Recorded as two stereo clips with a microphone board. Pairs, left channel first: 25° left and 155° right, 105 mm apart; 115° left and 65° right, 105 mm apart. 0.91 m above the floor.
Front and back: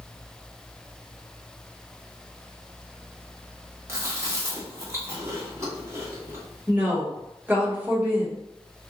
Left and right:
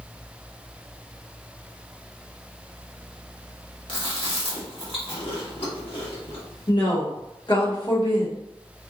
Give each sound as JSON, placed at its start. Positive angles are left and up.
{"t": 3.9, "sound": "chewing", "azimuth_deg": 140, "distance_m": 1.1}
{"t": 6.7, "sound": "a woman speaking", "azimuth_deg": 130, "distance_m": 1.4}